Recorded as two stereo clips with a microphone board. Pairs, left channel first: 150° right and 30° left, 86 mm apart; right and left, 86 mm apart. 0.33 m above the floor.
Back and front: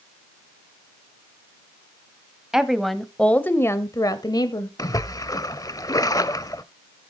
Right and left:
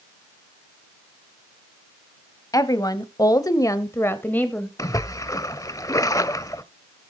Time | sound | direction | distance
2.5 | a woman speaking | 50° right | 1.6 m
4.8 | a splash | 125° right | 0.7 m